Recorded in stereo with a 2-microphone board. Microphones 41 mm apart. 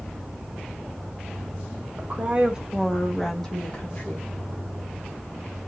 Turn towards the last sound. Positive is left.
turn(degrees=30)  # may be behind; listen again after turning